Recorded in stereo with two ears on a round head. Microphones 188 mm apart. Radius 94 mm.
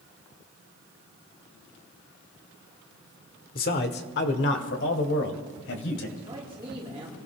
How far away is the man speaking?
About 1.3 m.